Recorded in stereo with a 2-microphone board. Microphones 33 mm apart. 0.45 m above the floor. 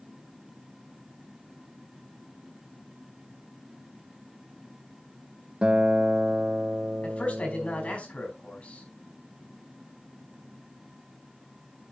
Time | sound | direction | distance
5.6 | a guitar | 30° right (ahead or behind) | 0.5 m
7.0 | a man speaking | 40° left (ahead or behind) | 4.5 m